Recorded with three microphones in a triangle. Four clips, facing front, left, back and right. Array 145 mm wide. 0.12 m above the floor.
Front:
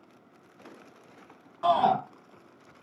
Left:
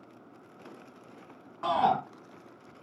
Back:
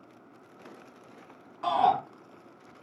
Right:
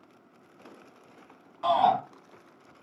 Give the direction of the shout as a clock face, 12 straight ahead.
10 o'clock.